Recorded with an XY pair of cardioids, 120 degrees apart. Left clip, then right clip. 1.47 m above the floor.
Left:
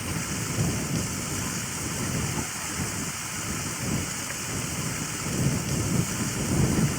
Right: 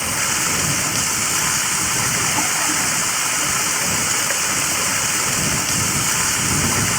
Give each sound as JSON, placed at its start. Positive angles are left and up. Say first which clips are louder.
{"t": 0.0, "sound": "running water", "louder": "right 12 dB", "azimuth_deg": -65}